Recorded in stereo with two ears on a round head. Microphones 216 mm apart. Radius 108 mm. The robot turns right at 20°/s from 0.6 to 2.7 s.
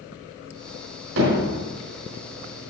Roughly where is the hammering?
Right.